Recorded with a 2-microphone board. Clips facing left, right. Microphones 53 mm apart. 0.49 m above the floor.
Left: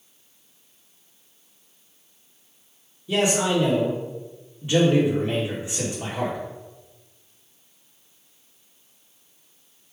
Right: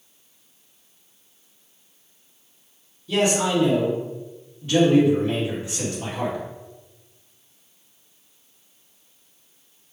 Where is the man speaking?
20° left (ahead or behind), 1.4 m.